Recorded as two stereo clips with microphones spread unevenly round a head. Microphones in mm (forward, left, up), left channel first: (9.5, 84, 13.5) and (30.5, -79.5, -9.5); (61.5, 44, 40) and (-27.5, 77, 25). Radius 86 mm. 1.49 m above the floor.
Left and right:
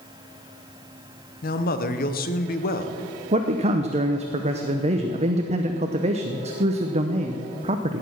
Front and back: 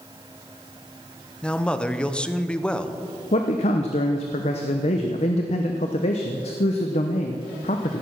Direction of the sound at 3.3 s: 30° right.